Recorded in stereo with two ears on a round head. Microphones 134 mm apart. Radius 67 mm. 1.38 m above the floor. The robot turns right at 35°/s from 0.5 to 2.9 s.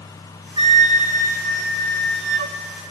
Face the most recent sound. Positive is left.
turn(degrees=-70)